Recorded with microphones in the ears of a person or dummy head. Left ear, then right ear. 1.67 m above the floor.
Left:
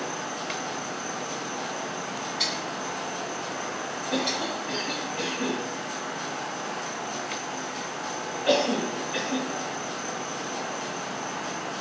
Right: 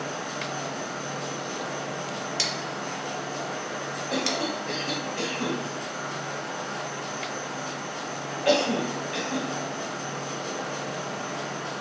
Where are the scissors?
70° right (ahead or behind), 0.8 m.